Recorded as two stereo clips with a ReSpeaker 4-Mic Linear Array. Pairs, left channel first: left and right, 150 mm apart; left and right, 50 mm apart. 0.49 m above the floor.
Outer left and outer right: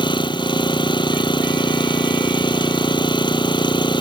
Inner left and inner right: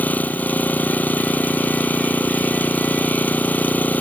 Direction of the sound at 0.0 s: 30° left (ahead or behind).